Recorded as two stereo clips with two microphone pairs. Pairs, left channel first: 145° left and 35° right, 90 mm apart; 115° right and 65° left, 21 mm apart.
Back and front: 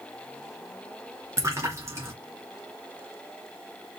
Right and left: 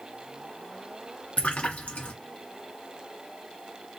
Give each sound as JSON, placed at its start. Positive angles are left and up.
{"t": 1.4, "sound": "a splash", "azimuth_deg": -95, "distance_m": 2.5}